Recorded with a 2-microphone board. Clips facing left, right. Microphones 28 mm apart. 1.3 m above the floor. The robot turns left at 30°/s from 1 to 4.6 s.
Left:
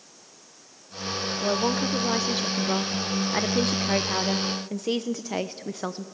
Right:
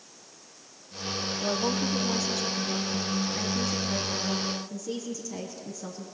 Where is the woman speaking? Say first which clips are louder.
Left 4 dB; 165° left, 0.9 m; by 6.0 s 65° left, 0.9 m.